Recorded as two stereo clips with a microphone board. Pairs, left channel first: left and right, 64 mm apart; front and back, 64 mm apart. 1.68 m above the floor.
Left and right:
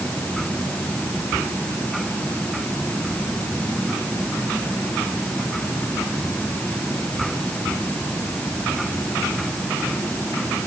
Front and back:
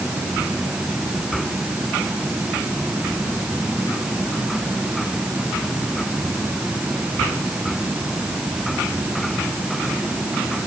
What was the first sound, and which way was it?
Only background noise.